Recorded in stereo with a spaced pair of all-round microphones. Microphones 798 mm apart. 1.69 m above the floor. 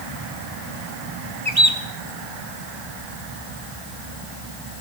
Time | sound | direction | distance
1.4 | a bird | 30° right (ahead or behind) | 2.0 m